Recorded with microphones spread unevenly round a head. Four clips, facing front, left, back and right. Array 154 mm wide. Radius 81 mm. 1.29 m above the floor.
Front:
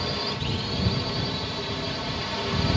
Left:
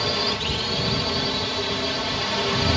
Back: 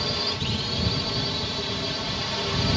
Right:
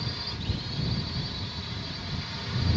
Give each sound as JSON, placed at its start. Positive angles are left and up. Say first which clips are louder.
{"t": 0.0, "sound": "a drone", "louder": "left 12 dB, even", "azimuth_deg": 95}